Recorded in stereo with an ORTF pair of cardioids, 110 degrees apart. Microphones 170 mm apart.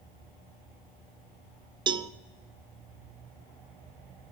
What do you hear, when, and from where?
1.9 s a cowbell: 30° right, 0.6 m